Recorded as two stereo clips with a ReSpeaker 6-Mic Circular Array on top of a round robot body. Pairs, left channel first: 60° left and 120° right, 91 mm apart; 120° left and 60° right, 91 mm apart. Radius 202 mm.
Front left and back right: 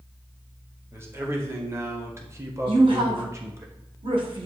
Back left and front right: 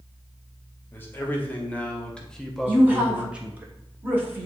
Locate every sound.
0.9 s a man speaking: straight behind, 2.0 m; by 3.7 s 110° right, 1.3 m
2.7 s a woman speaking: 130° right, 2.5 m